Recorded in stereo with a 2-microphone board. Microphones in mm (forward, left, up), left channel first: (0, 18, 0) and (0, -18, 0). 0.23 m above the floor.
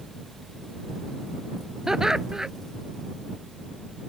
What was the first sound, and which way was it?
Laughter, 15° right (ahead or behind).